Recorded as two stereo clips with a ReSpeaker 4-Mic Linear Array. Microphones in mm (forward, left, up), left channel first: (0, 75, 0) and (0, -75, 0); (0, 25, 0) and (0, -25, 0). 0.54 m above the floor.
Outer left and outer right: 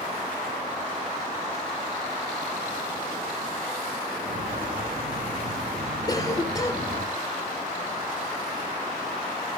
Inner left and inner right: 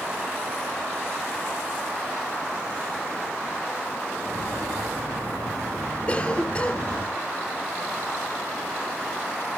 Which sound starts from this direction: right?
Footsteps, at 4.2 s.